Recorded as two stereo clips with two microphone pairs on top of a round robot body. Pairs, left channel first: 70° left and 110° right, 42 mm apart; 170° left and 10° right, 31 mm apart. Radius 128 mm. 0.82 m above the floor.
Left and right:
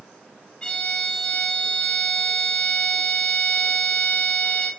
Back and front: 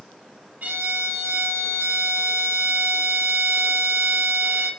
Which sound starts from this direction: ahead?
A violin, at 0.6 s.